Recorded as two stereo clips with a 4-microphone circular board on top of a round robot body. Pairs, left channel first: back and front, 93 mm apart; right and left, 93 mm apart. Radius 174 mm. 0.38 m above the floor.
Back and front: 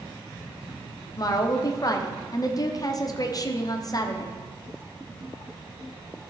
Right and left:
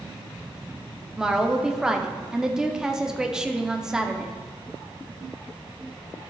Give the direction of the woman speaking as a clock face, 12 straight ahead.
6 o'clock.